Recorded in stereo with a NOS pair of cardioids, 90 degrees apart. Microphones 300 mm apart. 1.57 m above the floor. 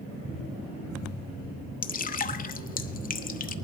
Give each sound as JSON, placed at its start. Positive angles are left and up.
{"t": 1.8, "sound": "dripping", "azimuth_deg": 30, "distance_m": 0.9}